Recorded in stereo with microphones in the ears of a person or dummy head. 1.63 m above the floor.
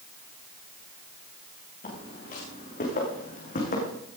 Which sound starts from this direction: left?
Footsteps, at 1.8 s.